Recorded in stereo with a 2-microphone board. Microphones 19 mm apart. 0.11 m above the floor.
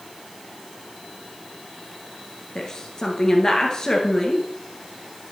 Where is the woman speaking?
25° left (ahead or behind), 1.6 m.